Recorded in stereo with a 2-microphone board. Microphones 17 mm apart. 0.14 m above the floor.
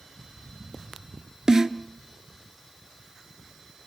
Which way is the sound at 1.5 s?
35° right (ahead or behind).